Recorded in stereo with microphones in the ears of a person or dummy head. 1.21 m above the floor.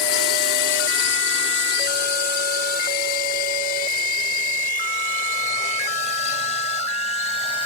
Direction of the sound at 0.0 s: 70° left (ahead or behind).